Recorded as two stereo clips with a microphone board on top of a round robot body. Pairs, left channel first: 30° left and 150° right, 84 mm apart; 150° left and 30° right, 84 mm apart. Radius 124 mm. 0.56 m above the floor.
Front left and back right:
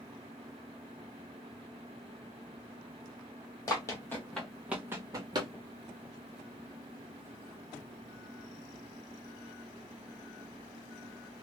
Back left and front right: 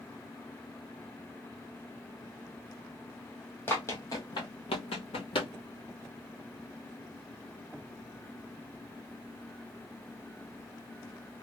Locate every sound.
3.7 s running footsteps: 85° left, 1.2 m; by 5.5 s 170° left, 1.1 m